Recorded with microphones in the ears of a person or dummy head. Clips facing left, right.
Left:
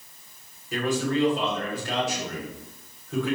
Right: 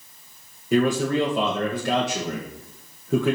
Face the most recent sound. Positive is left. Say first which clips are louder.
# right 5 dB
turn(degrees=-55)  # may be behind; listen again after turning